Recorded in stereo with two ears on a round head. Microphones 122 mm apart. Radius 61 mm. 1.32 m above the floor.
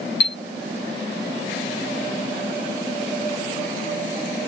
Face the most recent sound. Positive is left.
turn(degrees=80)